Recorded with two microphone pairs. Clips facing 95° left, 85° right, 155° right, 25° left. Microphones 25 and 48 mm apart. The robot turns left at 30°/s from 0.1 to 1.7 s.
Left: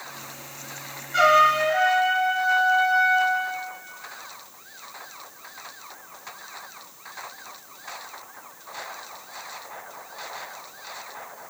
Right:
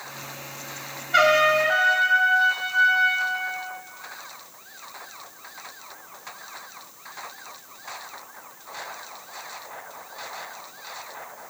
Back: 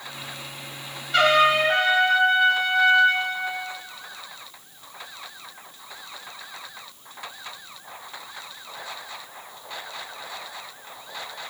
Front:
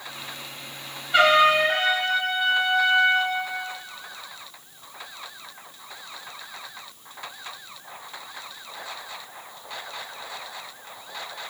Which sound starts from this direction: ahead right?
A trumpet, at 1.1 s.